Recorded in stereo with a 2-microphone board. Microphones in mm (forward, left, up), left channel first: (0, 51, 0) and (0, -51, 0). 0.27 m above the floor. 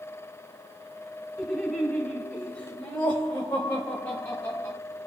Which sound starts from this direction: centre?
Laughter, at 1.4 s.